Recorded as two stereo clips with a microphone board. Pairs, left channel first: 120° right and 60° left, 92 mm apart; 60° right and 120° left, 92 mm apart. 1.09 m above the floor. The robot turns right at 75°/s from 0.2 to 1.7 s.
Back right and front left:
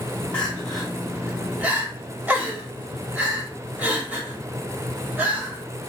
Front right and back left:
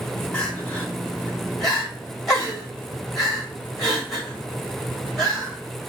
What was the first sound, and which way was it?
Crying, 75° right.